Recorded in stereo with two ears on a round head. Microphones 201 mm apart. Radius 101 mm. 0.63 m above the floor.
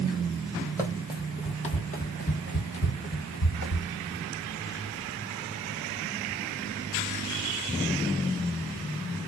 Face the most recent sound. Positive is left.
turn(degrees=65)  # may be behind; listen again after turning